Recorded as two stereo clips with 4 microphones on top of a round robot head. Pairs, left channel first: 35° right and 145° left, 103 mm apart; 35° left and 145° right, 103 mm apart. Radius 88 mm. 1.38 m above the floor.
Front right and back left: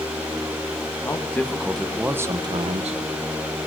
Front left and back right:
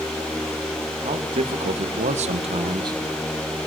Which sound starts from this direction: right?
A man speaking, at 1.0 s.